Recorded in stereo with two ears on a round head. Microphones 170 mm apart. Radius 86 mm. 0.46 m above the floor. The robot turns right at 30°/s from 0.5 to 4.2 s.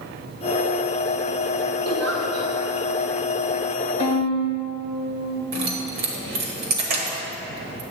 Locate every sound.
1.9 s a giggle: 70° right (ahead or behind), 2 m; by 2.5 s 85° right, 2 m
4.0 s a violin: 40° right (ahead or behind), 1.5 m; by 5.4 s 35° right (ahead or behind), 1.5 m
5.5 s keys jangling: 55° right (ahead or behind), 1.2 m